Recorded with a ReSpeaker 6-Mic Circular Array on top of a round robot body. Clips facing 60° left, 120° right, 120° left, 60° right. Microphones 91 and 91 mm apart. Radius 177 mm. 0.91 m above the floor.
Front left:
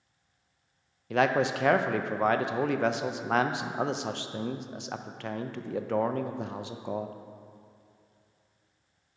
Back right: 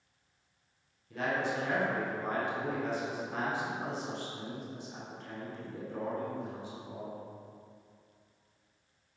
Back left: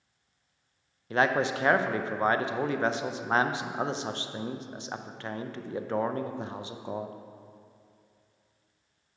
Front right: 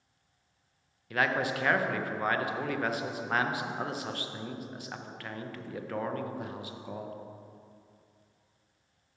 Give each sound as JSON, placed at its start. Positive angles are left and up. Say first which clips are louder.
{"t": 1.1, "sound": "a man speaking", "louder": "front left 8 dB, back left 4 dB", "azimuth_deg": 55, "distance_m": 0.6}